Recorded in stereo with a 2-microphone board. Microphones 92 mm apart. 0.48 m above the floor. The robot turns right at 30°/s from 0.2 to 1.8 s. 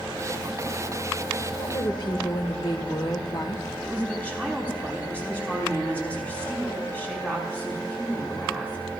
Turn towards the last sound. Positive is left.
turn(degrees=15)  # may be behind; listen again after turning